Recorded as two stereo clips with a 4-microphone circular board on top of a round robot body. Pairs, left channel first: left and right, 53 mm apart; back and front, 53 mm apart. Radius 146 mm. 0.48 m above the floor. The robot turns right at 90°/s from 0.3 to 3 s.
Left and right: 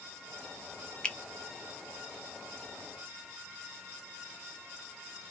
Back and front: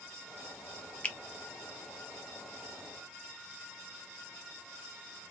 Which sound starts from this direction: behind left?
A finger snap, at 1.0 s.